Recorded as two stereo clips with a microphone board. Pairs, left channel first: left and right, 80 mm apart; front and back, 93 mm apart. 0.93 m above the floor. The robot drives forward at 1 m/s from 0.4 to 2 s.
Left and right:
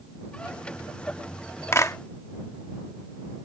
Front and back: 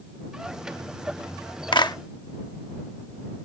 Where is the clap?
35° left; by 2.0 s 40° left.